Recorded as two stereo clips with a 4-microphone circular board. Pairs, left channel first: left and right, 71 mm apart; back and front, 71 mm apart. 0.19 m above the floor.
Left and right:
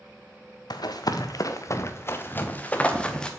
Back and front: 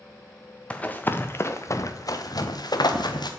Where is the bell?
I don't hear a bell.